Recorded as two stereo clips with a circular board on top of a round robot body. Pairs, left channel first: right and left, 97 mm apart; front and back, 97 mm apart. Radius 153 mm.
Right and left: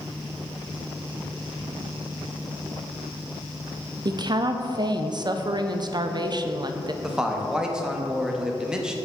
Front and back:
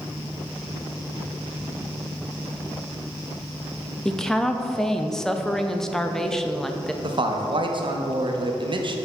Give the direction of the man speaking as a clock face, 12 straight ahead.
6 o'clock.